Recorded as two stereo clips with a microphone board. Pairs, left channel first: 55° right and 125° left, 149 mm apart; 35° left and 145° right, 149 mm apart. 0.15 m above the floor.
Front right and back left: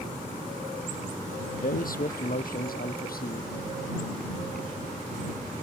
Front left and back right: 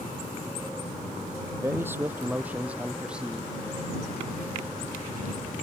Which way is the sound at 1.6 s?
75° right.